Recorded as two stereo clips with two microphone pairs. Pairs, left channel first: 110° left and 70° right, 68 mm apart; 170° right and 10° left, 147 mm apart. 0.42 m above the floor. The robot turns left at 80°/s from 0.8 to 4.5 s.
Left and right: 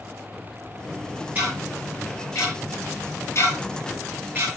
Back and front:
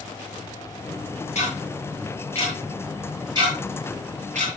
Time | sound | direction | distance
1.4 | ticking | 130° right | 9.5 m